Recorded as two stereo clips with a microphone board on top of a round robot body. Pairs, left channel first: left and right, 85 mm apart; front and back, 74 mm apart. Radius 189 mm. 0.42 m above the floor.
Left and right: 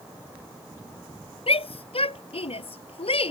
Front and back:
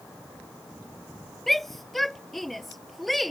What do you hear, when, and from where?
1.5 s a shout: 90° left